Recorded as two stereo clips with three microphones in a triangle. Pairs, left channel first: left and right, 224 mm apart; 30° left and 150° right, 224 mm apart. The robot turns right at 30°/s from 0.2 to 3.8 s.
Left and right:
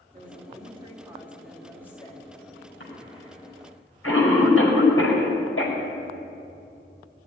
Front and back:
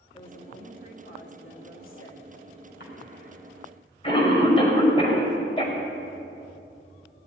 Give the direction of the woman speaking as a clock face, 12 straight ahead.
1 o'clock.